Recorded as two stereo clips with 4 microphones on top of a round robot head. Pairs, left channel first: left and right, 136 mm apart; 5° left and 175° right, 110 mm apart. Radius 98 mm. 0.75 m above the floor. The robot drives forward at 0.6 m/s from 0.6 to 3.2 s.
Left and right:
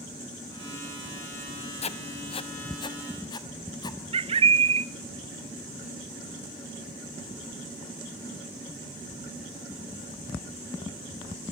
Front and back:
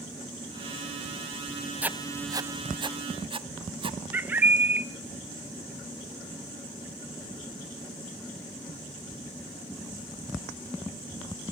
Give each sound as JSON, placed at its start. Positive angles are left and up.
{"t": 1.8, "sound": "writing", "azimuth_deg": 110, "distance_m": 0.8}
{"t": 4.1, "sound": "a bird", "azimuth_deg": -105, "distance_m": 0.8}